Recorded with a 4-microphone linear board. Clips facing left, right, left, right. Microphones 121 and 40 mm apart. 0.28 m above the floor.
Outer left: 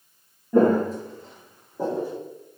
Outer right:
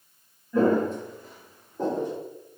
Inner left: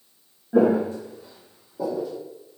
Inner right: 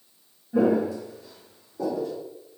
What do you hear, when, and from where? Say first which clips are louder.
0.5 s footsteps: outer left 3 dB, inner left 3 dB; 55° left (ahead or behind), 0.6 m; by 2.2 s 5° left (ahead or behind), 1.1 m